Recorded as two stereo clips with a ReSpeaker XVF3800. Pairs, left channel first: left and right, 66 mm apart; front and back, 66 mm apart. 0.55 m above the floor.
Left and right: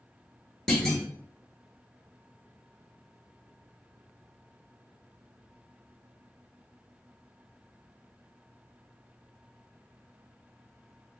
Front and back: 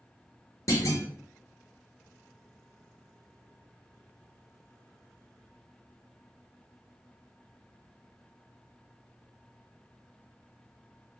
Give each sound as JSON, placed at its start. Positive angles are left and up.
{"t": 0.7, "sound": "a clunk", "azimuth_deg": 10, "distance_m": 1.1}